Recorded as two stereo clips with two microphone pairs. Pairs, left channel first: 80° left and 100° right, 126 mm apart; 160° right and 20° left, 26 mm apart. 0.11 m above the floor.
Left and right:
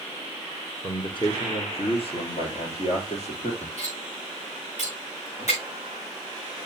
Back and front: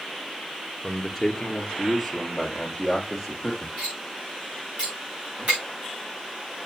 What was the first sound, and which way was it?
A man speaking, 120° left.